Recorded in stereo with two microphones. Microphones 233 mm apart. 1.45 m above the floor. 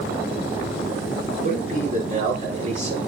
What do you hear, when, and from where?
1.4 s a man speaking: 35° right (ahead or behind), 5.5 m; by 3.0 s 30° right (ahead or behind), 6 m